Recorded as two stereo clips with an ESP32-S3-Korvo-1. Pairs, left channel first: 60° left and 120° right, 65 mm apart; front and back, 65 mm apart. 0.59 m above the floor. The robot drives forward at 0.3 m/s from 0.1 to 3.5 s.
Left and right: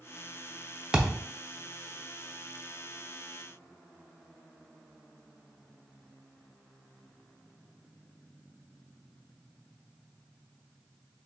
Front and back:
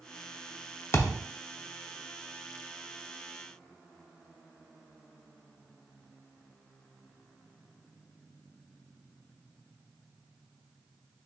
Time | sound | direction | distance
0.9 | a thud | 45° right | 0.5 m